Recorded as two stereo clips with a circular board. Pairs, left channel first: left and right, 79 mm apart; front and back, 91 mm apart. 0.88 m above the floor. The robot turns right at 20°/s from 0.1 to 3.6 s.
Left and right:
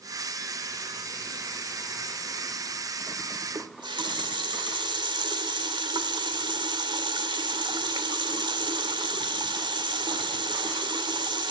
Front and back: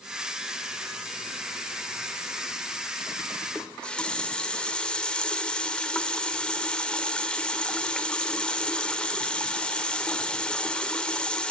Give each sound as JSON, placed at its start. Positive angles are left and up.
{"t": 3.5, "sound": "a running tap", "azimuth_deg": -80, "distance_m": 1.9}